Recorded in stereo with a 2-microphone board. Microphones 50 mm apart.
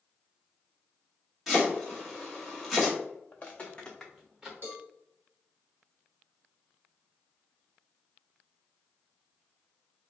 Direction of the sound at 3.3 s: 35° left (ahead or behind).